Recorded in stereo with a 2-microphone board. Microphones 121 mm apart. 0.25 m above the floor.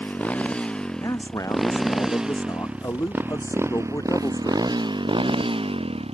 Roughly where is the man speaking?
Left.